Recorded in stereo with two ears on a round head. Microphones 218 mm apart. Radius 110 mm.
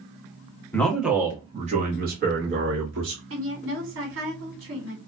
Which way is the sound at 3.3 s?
55° right (ahead or behind).